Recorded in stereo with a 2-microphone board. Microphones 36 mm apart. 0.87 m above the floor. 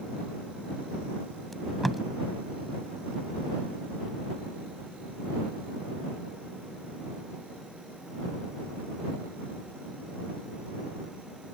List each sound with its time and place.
1.5 s tape being pulled: 5° left (ahead or behind)